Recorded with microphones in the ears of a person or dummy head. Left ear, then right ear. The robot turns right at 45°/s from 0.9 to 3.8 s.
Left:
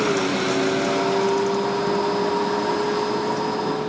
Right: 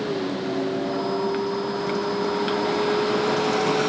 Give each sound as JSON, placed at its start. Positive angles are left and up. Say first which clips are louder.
{"t": 0.0, "sound": "a vehicle", "louder": "left 6 dB", "azimuth_deg": 105}